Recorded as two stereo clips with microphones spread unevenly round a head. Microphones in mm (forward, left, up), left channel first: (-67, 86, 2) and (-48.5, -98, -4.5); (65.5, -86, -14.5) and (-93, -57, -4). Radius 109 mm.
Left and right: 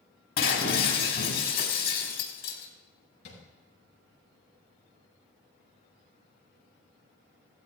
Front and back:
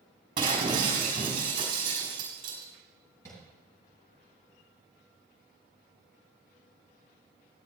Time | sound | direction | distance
0.4 | breaking glass | 105° left | 4 m
3.2 | tapping | 65° left | 7 m